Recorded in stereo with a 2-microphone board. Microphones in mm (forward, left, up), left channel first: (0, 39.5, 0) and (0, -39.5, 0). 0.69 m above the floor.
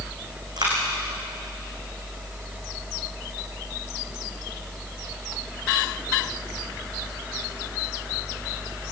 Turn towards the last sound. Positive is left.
turn(degrees=-60)  # may be behind; listen again after turning